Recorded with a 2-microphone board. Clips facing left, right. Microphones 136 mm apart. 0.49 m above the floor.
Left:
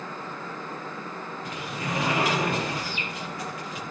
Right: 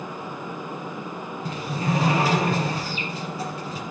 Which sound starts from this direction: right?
A sliding door, at 1.4 s.